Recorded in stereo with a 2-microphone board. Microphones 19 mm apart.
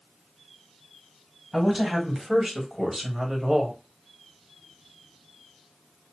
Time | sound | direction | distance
1.5 | a woman speaking | 15° right (ahead or behind) | 1.9 m